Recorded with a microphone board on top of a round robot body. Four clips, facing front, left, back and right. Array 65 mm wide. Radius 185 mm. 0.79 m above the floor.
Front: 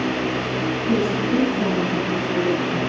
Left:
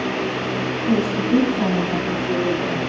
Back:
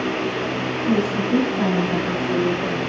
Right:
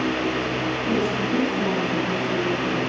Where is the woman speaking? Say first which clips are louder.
Left 5 dB, back 1 dB; 130° left, 8 m; by 2.8 s 115° left, 6 m.